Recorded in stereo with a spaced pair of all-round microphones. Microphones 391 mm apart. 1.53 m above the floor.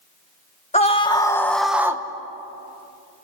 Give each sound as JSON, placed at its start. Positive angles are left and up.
{"t": 0.7, "sound": "a scream", "side_deg": 15, "distance_m": 2.0}